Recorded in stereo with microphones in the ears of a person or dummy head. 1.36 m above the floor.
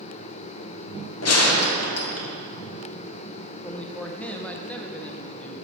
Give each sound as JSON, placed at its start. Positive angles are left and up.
{"t": 1.2, "sound": "a gunshot", "side_deg": 70, "distance_m": 1.4}
{"t": 3.6, "sound": "a man speaking", "side_deg": 10, "distance_m": 0.7}